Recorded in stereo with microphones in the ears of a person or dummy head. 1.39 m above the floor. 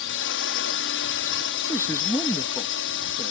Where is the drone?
60° left (ahead or behind).